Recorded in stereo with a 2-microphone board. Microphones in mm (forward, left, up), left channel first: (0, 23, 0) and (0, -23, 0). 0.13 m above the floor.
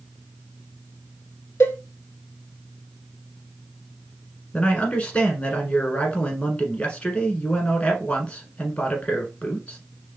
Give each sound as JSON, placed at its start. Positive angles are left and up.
{"t": 1.6, "sound": "a cowbell", "side_deg": 60, "distance_m": 0.6}
{"t": 4.5, "sound": "a man speaking", "side_deg": 25, "distance_m": 1.3}